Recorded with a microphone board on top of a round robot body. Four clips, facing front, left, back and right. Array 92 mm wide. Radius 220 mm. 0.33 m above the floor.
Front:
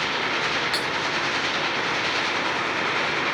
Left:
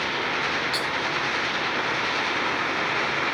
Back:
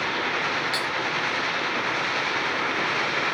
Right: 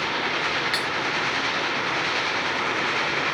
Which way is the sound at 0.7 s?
70° right.